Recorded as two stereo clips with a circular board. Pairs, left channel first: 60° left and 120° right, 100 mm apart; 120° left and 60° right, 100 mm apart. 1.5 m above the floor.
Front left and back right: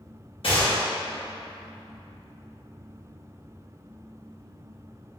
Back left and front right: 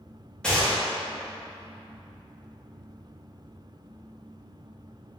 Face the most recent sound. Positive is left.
turn(degrees=40)